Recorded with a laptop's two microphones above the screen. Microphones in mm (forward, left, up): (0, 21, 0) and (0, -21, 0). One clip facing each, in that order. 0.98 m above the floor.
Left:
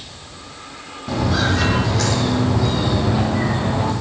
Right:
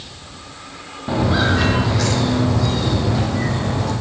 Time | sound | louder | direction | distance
1.1 | footsteps | right 2 dB | 25° right (ahead or behind) | 2.5 m